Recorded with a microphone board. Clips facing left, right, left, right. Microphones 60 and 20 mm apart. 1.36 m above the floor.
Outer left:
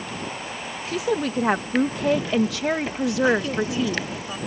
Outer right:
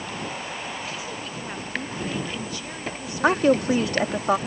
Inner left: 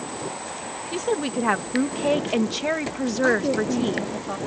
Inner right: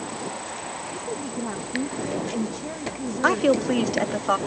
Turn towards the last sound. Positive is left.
turn(degrees=-60)  # may be behind; listen again after turning